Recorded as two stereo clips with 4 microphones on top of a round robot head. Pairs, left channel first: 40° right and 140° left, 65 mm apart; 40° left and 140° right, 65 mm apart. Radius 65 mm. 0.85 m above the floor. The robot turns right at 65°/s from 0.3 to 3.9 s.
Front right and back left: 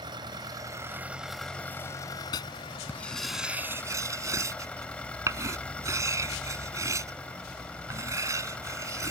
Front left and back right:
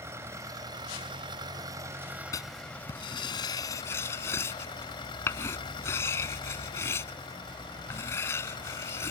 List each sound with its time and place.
0.0 s an engine running: 165° left; by 9.1 s 35° left
2.3 s writing: 10° right; by 9.1 s 95° left